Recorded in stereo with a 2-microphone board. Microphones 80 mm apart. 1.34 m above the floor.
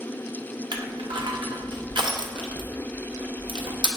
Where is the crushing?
70° right (ahead or behind), 0.5 m.